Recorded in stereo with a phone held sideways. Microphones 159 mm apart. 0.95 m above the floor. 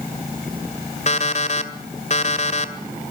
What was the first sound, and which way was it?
An alarm clock, 45° left (ahead or behind).